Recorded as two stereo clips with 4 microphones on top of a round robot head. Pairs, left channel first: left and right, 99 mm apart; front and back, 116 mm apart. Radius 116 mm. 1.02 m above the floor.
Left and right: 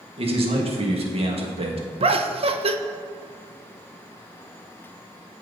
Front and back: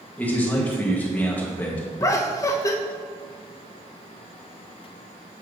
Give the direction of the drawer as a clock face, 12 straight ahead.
No drawer in this recording.